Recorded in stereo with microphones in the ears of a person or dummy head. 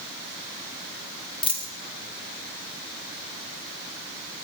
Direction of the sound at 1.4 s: 35° left (ahead or behind).